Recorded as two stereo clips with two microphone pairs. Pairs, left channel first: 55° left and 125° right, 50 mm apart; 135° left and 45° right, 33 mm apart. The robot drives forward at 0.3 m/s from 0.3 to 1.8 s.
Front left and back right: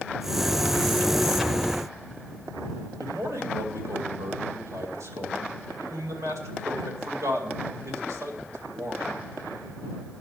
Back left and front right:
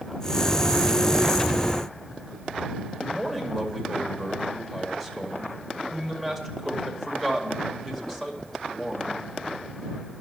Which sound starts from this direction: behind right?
A man speaking, at 3.0 s.